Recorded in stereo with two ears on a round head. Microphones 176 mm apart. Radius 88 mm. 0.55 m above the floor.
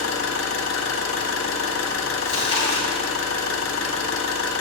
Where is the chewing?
25° left (ahead or behind), 2 m.